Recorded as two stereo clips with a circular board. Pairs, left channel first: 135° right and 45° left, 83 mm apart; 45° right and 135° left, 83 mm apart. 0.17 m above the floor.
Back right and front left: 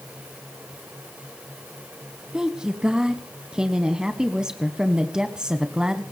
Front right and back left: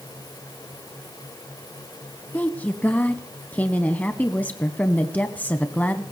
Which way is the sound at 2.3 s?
15° right.